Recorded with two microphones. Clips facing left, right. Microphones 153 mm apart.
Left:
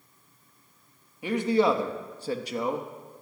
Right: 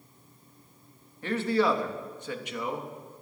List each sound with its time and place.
1.2 s a man speaking: 10° left (ahead or behind), 1.2 m; by 2.9 s 35° left (ahead or behind), 1.3 m